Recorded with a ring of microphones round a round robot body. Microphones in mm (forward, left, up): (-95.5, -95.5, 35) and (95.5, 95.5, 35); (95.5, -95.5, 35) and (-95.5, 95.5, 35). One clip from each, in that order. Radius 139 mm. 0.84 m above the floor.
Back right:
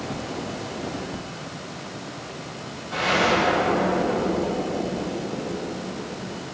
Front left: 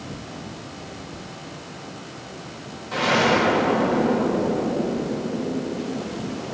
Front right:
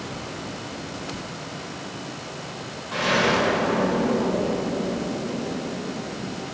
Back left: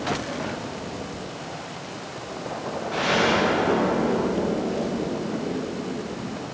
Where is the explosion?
20° left, 4 m.